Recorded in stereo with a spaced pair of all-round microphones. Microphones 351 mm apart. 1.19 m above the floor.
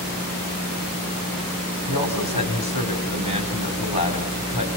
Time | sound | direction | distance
1.9 | a man speaking | 80° left | 4.5 m